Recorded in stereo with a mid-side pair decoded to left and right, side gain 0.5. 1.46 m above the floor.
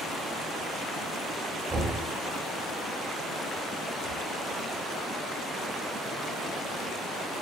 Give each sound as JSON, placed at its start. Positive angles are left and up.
{"t": 1.7, "sound": "knocking", "azimuth_deg": -20, "distance_m": 1.2}